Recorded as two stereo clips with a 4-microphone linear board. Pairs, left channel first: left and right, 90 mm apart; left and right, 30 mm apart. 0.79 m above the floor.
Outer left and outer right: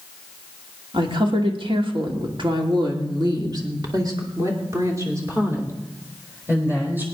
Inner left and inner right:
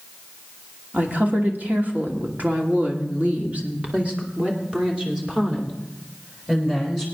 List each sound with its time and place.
0.9 s a woman speaking: 65° right (ahead or behind), 2.5 m; by 7.0 s 20° right (ahead or behind), 4 m